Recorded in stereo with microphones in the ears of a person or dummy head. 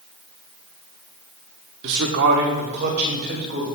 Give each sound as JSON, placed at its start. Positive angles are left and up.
{"t": 1.8, "sound": "a man speaking", "side_deg": -65, "distance_m": 1.0}